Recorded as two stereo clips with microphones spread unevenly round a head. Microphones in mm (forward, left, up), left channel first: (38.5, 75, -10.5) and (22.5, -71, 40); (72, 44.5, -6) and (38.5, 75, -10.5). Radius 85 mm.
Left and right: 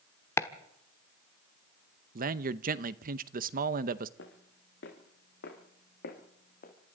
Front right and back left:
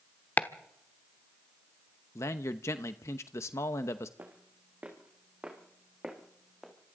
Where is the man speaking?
60° right, 0.9 m.